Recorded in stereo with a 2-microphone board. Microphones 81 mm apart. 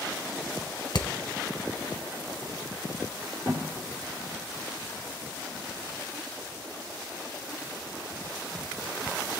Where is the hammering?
65° left (ahead or behind), 1.2 m.